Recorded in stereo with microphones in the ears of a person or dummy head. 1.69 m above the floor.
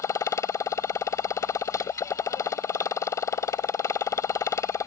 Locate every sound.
0.0 s a motorcycle: 20° left (ahead or behind)